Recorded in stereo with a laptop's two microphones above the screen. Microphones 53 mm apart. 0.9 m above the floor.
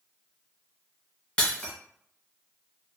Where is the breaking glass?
20° left (ahead or behind), 0.9 m.